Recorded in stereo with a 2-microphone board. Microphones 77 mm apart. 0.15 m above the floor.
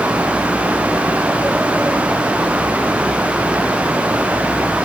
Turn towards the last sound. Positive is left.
No sound to turn to.